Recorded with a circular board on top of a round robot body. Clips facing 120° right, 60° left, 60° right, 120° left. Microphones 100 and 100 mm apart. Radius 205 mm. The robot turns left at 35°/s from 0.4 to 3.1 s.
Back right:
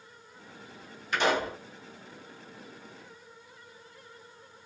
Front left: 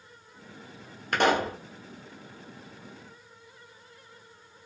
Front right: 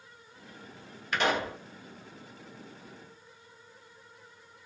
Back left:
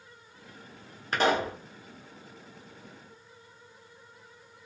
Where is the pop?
75° left, 1.1 m; by 1.6 s 60° left, 1.1 m.